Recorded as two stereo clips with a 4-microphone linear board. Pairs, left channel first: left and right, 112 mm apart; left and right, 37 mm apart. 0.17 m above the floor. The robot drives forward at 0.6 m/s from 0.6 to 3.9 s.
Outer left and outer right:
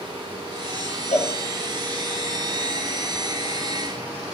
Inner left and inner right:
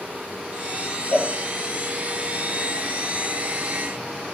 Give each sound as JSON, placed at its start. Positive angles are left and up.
{"t": 1.1, "sound": "a cowbell", "side_deg": 75, "distance_m": 0.6}